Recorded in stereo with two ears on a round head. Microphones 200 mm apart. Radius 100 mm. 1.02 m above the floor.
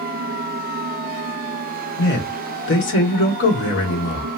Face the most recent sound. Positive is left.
turn(degrees=60)  # may be behind; listen again after turning